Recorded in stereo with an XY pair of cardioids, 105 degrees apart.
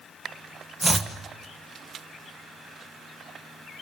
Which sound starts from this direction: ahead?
Chopping, at 0.8 s.